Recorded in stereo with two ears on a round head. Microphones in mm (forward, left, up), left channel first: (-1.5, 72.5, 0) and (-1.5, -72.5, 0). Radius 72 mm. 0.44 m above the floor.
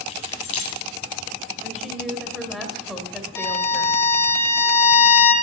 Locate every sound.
0.1 s keys jangling: 40° left (ahead or behind), 1.8 m
1.6 s a woman speaking: centre (ahead or behind), 1.5 m
3.4 s a violin: 15° left (ahead or behind), 1.1 m